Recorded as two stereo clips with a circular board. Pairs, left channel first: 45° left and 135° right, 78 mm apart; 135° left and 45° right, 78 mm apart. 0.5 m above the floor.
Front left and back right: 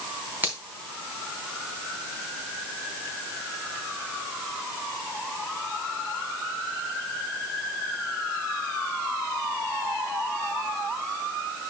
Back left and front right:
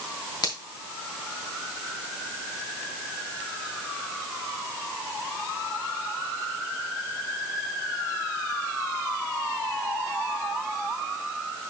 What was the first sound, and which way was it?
A finger snap, 160° left.